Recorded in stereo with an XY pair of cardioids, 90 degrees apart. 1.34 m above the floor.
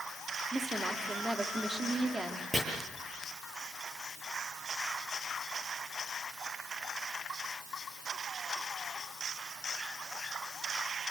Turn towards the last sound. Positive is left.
turn(degrees=-15)